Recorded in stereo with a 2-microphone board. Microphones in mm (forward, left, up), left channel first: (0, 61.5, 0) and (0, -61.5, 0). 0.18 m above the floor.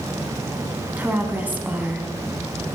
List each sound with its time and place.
1.0 s a woman speaking: 15° right (ahead or behind), 1.3 m